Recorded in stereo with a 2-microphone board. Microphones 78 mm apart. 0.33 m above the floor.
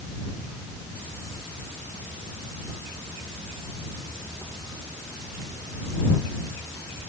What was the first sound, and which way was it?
Only background noise.